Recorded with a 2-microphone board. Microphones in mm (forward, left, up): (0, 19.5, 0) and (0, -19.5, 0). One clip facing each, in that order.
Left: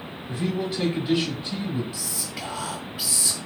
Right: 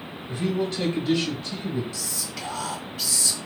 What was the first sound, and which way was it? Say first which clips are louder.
A man speaking: right 1 dB; centre (ahead or behind).